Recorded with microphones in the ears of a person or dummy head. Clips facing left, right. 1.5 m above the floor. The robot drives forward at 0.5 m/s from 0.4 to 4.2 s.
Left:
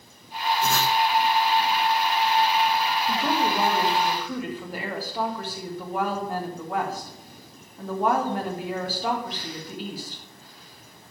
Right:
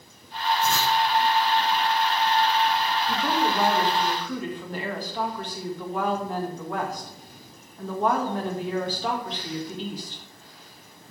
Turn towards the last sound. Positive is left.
turn(degrees=5)  # may be behind; listen again after turning